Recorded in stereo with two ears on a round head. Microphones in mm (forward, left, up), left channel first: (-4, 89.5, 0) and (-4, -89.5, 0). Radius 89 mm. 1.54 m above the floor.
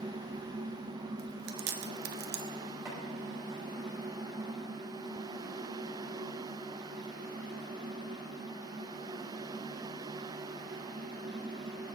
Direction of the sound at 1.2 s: 55° right (ahead or behind).